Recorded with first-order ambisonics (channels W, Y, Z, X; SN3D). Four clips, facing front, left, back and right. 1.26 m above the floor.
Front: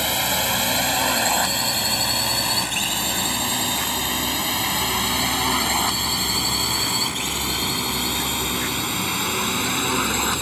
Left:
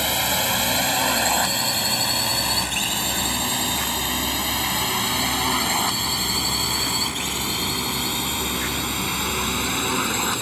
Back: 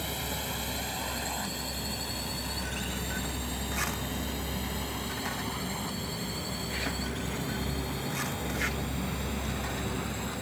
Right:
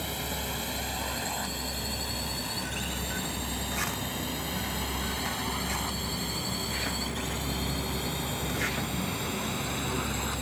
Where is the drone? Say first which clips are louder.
Left 12 dB, front 13 dB; 45° left; by 10.4 s 35° left.